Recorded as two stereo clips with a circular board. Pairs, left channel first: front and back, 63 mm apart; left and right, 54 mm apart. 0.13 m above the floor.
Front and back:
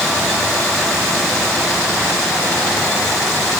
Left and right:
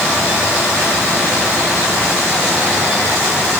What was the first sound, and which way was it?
Only background noise.